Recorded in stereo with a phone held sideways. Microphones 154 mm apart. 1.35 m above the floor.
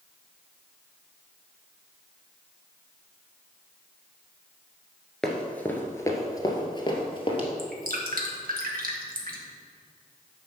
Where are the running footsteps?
5° left (ahead or behind), 1.4 m; by 7.5 s 40° left (ahead or behind), 2.0 m.